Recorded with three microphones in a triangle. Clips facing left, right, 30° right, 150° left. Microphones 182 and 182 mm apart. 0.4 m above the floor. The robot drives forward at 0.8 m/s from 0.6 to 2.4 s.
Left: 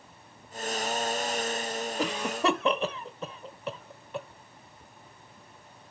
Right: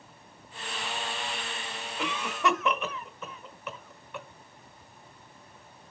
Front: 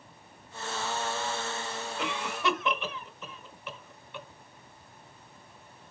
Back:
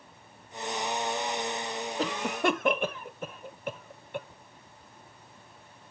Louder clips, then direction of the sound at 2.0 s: Left 1 dB, back 4 dB; 120° left.